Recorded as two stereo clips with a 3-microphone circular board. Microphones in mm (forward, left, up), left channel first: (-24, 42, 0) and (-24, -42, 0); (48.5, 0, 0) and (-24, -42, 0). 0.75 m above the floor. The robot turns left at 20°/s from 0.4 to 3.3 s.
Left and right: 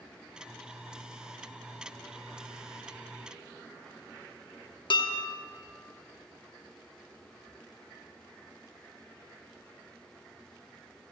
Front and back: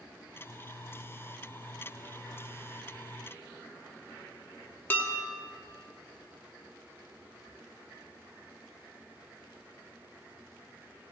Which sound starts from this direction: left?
Dishes clattering, at 4.9 s.